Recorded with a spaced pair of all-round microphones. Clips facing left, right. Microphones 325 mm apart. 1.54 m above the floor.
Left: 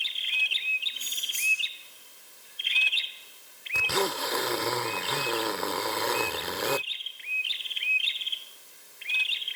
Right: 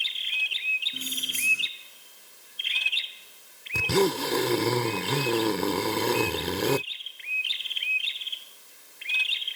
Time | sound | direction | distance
0.9 | keys jangling | 65° right (ahead or behind) | ?
3.7 | a zipper | 45° right (ahead or behind) | ?